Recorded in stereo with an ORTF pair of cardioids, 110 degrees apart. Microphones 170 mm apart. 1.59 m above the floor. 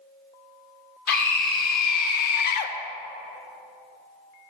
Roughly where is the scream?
Ahead left.